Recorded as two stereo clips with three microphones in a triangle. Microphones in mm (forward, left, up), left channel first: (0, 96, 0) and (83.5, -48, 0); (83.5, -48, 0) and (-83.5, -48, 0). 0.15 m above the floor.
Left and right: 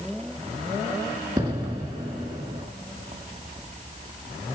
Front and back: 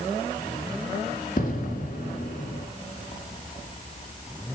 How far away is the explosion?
About 1.9 m.